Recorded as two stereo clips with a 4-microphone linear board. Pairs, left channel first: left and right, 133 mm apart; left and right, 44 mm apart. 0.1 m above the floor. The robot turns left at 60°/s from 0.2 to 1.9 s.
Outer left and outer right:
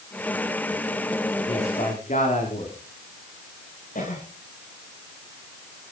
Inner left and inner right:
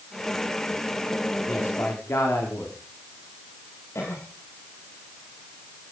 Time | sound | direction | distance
1.5 | a man speaking | 40° left (ahead or behind) | 7.5 m
4.0 | a cough | 80° left | 7.5 m